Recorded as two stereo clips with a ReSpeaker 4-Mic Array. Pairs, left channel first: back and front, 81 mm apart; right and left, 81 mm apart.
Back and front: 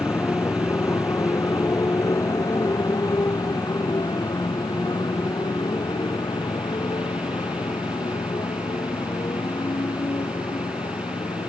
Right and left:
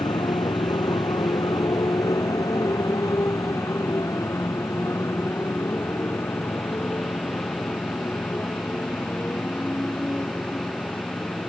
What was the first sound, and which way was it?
A motorcycle, 120° right.